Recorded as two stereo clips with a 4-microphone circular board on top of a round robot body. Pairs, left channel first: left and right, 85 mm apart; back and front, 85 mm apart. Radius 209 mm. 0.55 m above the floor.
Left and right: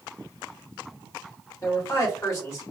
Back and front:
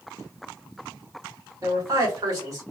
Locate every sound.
1.6 s a man speaking: 35° left, 2.5 m